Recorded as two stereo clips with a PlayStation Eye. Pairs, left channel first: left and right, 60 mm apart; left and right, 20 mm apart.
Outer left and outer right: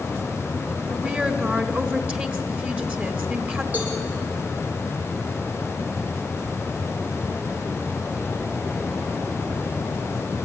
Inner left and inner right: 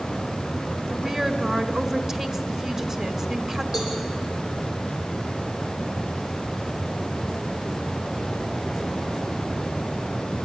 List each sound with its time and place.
0.9 s a woman speaking: 25° right (ahead or behind), 1.5 m
3.7 s a cowbell: 30° right (ahead or behind), 7 m